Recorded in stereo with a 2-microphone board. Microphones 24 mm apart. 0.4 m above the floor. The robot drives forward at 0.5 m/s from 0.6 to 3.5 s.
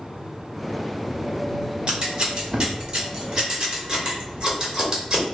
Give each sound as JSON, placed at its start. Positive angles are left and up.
{"t": 1.9, "sound": "scissors", "side_deg": -40, "distance_m": 1.0}